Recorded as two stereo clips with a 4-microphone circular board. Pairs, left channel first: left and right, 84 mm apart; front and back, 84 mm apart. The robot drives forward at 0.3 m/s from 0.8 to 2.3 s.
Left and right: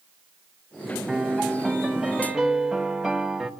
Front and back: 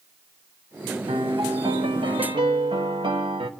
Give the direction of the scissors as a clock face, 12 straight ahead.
I don't hear scissors.